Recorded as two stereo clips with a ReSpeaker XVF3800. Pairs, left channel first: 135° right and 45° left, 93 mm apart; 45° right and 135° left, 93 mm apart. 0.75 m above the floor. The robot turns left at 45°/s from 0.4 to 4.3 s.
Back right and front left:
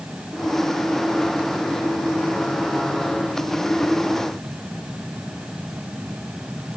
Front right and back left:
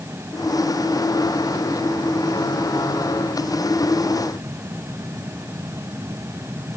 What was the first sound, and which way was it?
Only background noise.